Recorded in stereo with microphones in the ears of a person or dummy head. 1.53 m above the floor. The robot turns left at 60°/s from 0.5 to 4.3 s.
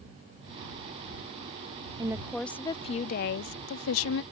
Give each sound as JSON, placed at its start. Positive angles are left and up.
{"t": 2.0, "sound": "a woman speaking", "azimuth_deg": -160}